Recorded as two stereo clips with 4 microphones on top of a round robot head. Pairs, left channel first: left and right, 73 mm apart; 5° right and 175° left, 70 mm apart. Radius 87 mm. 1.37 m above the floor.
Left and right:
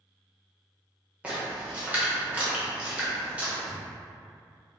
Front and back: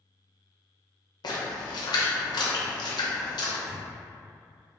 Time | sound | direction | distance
1.2 | a splash | 15° right | 0.8 m
3.7 | a thud | 100° right | 0.7 m